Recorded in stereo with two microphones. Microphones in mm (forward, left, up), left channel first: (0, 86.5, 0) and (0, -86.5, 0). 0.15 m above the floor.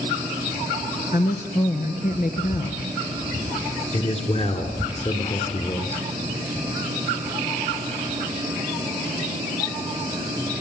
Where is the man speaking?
40° left (ahead or behind), 2.5 m.